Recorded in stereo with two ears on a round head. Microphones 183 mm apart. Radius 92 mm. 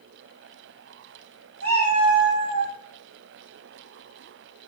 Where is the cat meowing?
15° left (ahead or behind), 1.6 m; by 2.7 s 15° right (ahead or behind), 1.6 m.